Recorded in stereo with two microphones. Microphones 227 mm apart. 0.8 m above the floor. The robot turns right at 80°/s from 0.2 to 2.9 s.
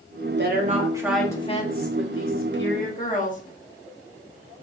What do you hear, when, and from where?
0.4 s a woman speaking: 60° right, 1.3 m; by 3.4 s 140° left, 1.3 m